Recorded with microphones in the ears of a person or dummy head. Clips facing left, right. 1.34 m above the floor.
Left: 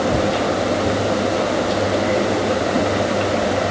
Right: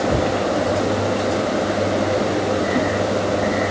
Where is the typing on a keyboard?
I don't hear typing on a keyboard.